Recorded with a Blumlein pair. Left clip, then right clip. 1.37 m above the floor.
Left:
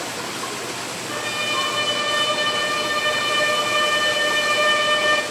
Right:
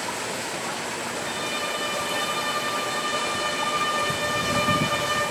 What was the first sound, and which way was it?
A violin, 60° left.